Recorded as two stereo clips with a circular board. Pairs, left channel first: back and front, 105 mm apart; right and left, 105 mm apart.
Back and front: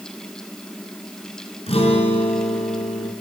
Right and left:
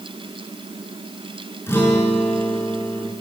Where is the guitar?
155° right, 5 m.